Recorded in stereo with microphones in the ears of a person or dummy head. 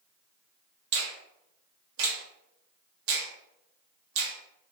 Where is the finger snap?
70° right (ahead or behind), 0.9 m.